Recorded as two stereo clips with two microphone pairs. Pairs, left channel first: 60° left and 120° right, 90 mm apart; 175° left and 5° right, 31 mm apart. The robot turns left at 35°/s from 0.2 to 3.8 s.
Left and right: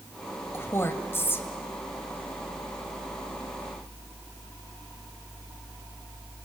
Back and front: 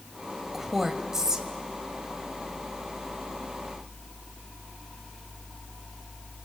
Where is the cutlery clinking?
No cutlery clinking in this recording.